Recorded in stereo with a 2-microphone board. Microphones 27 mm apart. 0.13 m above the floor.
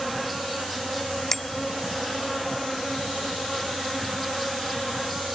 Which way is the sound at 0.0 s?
Centre (ahead or behind).